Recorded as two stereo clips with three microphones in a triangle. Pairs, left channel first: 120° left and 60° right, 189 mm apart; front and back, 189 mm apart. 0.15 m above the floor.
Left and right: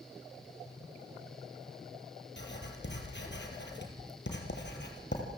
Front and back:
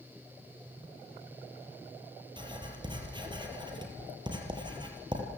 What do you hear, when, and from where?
2.4 s writing: 115° left, 4 m